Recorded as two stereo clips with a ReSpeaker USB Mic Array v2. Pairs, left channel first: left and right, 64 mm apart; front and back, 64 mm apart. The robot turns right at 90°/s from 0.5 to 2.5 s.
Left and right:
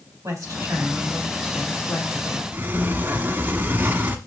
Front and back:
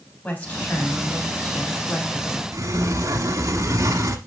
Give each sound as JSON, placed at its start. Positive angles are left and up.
{"t": 0.2, "sound": "a woman speaking", "azimuth_deg": -65, "distance_m": 4.0}
{"t": 2.5, "sound": "a sliding door", "azimuth_deg": -150, "distance_m": 1.2}